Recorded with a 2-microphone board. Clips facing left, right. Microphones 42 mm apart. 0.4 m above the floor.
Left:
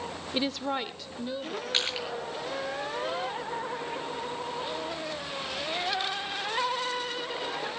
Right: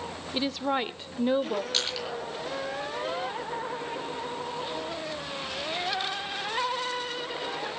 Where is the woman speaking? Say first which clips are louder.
Right 2 dB; 15° left (ahead or behind), 0.8 m; by 1.6 s 50° right (ahead or behind), 1.2 m.